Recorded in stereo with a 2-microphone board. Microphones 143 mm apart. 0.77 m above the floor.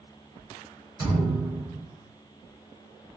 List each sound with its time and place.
1.0 s a thud: 25° right (ahead or behind), 1.5 m